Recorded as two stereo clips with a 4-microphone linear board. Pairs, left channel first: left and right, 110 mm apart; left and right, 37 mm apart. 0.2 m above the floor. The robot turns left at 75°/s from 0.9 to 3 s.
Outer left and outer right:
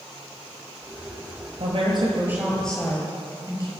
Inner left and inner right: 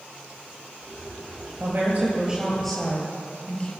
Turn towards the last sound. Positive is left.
turn(degrees=150)